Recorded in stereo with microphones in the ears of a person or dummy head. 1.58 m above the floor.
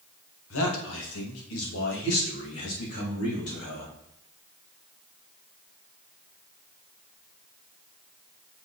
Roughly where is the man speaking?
Left.